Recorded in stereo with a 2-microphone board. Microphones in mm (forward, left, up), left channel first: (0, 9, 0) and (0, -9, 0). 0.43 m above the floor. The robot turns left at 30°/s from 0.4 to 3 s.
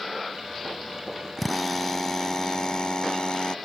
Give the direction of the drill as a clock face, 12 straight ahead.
6 o'clock.